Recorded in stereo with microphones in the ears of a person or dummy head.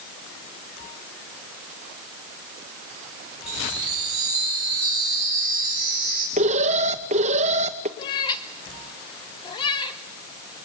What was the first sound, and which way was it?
A chime, 35° right (ahead or behind).